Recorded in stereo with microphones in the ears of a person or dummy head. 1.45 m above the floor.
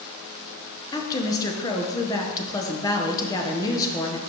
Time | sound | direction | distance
0.9 | a woman speaking | 20° left (ahead or behind) | 1.1 m